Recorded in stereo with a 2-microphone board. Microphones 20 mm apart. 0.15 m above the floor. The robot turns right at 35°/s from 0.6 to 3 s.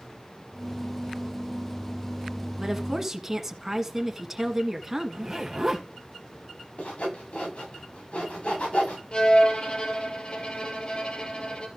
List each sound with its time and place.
2.6 s a woman speaking: 25° right (ahead or behind), 1.3 m; by 5.3 s 20° right (ahead or behind), 1.3 m
5.1 s a zipper: 25° right (ahead or behind), 2 m
6.8 s sawing: 80° left, 9 m
9.1 s a violin: 55° left (ahead or behind), 2 m